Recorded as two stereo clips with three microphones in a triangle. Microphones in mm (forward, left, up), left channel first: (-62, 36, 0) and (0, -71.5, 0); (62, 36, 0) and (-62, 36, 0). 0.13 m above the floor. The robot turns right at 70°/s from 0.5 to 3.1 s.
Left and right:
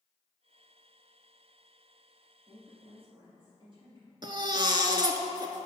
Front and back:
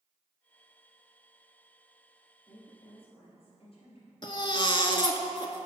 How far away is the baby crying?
About 0.6 m.